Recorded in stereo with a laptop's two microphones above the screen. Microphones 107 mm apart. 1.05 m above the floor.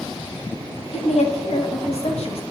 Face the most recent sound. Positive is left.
turn(degrees=75)  # may be behind; listen again after turning